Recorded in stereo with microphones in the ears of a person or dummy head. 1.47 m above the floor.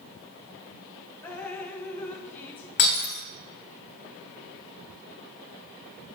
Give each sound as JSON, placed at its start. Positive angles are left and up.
{"t": 1.2, "sound": "dripping", "side_deg": 10, "distance_m": 0.9}
{"t": 2.8, "sound": "breaking glass", "side_deg": 55, "distance_m": 2.0}